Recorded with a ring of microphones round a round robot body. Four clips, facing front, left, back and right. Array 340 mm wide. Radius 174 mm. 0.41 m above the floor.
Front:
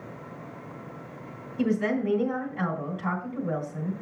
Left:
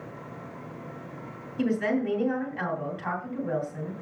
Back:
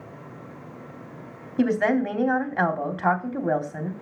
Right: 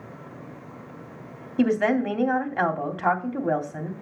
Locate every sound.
1.6 s a woman speaking: 145° right, 2.5 m